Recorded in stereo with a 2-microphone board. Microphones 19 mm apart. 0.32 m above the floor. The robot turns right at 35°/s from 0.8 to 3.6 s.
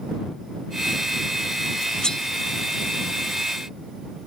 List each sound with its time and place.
2.0 s cutlery clinking: 40° left (ahead or behind); by 2.2 s 35° left (ahead or behind)